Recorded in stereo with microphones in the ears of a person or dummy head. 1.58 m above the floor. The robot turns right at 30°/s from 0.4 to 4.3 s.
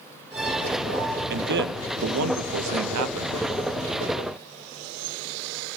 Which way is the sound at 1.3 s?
135° right.